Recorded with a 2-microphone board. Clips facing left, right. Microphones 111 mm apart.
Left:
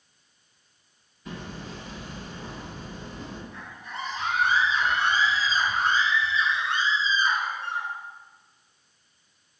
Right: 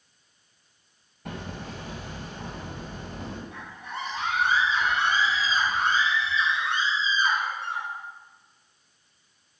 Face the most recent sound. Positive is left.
turn(degrees=-75)  # may be behind; listen again after turning